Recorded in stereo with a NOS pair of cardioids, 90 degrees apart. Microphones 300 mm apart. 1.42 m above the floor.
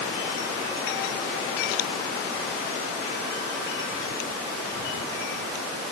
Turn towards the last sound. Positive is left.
No sound to turn to.